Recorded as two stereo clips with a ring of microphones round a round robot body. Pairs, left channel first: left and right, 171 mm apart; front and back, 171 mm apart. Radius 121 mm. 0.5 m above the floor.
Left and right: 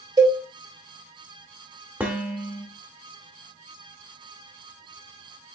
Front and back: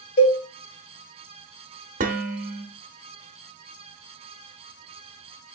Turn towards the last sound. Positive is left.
turn(degrees=-170)